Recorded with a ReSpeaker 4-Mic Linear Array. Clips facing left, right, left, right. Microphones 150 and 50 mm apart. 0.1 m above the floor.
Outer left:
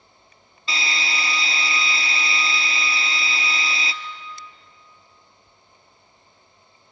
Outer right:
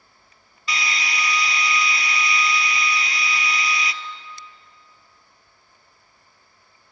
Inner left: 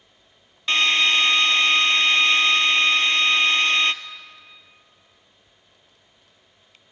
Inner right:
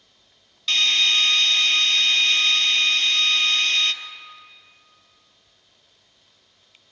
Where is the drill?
30° left (ahead or behind), 0.8 m.